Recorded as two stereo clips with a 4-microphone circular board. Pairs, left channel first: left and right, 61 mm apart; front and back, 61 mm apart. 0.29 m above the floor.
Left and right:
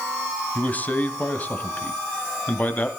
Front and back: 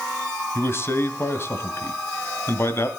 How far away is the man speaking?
About 1.3 m.